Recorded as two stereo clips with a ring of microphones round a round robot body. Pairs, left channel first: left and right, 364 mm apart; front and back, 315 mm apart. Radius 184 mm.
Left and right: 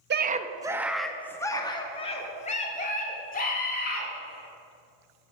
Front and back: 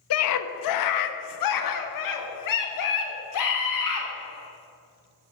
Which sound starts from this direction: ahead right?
A scream, at 0.1 s.